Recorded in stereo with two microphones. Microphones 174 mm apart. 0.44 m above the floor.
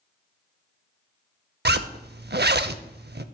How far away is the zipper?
About 0.5 m.